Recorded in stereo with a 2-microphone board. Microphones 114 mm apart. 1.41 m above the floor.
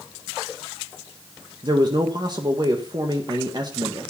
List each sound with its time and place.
1.6 s a man speaking: 40° right (ahead or behind), 1.5 m